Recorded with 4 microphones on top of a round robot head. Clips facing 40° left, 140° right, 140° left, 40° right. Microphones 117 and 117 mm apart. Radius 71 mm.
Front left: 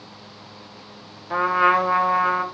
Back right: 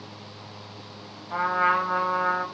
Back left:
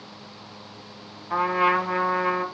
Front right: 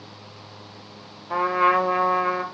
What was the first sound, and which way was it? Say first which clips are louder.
A trumpet: front left 5 dB, front right 2 dB; 15° left.